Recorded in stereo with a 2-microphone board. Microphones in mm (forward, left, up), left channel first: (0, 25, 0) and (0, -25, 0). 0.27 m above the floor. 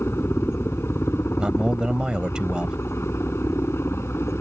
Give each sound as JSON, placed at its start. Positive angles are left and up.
{"t": 0.0, "sound": "a helicopter", "side_deg": 55}
{"t": 1.4, "sound": "a man speaking", "side_deg": -15}